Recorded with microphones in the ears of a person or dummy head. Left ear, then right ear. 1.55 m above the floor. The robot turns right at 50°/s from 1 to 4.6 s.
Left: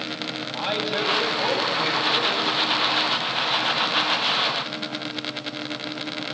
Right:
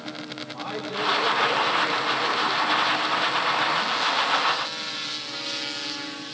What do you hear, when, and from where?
0.5 s a man speaking: 30° left, 10 m; by 2.5 s 105° left, 10 m